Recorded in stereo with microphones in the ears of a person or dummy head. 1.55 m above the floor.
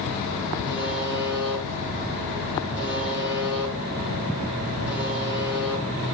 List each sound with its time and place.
0.7 s a buzzer: 5° right (ahead or behind), 4 m